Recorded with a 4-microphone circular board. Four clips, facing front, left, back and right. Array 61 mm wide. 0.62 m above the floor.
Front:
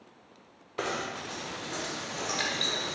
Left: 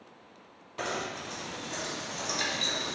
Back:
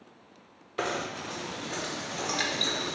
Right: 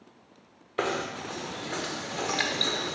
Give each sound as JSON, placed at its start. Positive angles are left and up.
{"t": 0.8, "sound": "knocking", "azimuth_deg": -100, "distance_m": 1.1}